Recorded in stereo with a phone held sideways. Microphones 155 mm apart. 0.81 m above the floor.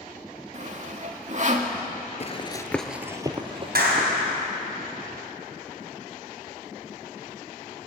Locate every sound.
0.5 s sawing: 50° right (ahead or behind), 1.7 m
2.2 s running footsteps: 45° left (ahead or behind), 1.1 m; by 4.3 s 45° right (ahead or behind), 2.5 m
3.8 s a clap: 85° right, 4 m